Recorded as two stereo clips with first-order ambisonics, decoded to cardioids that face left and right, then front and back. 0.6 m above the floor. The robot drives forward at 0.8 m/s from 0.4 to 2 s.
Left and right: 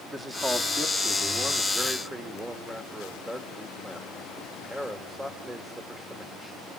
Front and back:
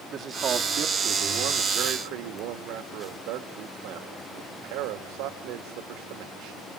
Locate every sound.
0.1 s a man speaking: 160° right, 1.0 m; by 6.6 s 175° right, 1.9 m